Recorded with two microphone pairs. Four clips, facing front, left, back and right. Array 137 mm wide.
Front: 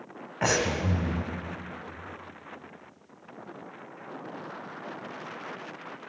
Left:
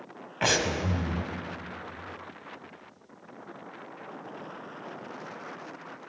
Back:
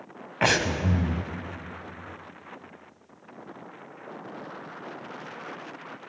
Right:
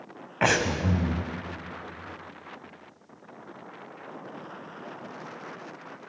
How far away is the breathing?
About 1.0 m.